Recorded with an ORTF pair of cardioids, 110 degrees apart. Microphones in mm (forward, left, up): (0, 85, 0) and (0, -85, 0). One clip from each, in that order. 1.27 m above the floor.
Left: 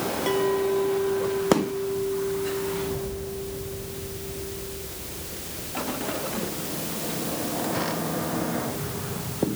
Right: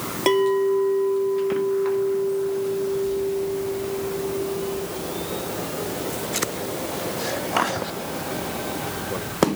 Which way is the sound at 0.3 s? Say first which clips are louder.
Right 6 dB; 60° right.